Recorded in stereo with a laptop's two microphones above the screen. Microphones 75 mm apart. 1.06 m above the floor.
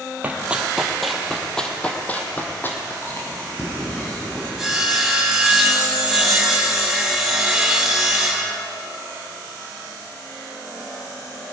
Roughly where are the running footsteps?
Right.